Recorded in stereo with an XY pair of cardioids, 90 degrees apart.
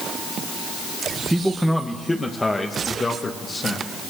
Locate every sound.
1.3 s a man speaking: 10° right, 1.6 m; by 3.9 s 40° left, 3.5 m